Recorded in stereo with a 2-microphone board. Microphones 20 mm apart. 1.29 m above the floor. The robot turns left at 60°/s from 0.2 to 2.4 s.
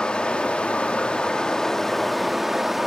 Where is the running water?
120° left, 1.1 m; by 2.9 s 15° right, 1.1 m.